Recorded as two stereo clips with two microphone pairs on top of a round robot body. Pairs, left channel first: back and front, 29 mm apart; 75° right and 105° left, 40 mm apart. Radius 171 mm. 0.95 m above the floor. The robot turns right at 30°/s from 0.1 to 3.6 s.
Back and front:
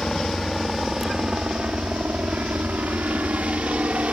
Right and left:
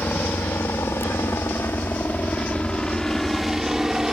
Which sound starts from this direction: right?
A helicopter, at 0.0 s.